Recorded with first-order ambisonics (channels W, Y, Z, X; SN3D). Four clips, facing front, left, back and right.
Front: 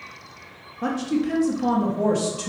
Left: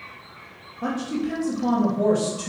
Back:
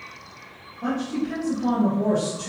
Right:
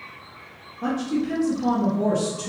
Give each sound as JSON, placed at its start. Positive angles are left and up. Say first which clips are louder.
{"t": 0.8, "sound": "a woman speaking", "louder": "right 2 dB, front 2 dB", "azimuth_deg": 5, "distance_m": 1.1}